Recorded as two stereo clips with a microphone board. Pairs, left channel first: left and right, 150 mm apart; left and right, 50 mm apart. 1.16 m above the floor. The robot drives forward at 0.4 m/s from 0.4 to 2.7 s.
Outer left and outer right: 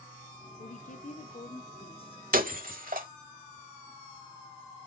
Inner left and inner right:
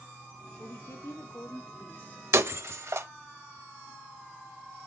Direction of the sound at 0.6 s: 65° left (ahead or behind).